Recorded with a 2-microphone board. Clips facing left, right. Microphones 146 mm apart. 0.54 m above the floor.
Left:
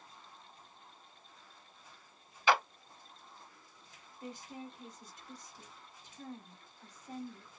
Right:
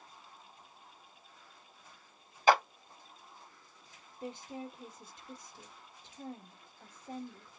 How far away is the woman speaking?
About 1.0 m.